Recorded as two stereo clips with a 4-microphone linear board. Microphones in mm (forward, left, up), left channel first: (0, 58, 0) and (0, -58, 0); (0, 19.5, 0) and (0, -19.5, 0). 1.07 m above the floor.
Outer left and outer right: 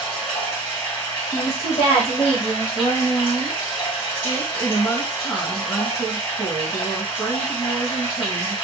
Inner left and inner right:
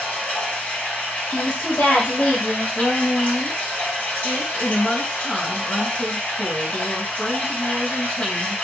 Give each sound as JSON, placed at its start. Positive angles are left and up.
{"t": 0.0, "sound": "running water", "side_deg": 40, "distance_m": 1.8}
{"t": 1.3, "sound": "a woman speaking", "side_deg": 60, "distance_m": 1.2}
{"t": 2.8, "sound": "a woman speaking", "side_deg": 20, "distance_m": 1.3}